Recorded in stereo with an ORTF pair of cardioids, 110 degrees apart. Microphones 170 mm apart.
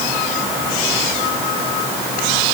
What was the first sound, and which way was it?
Only background noise.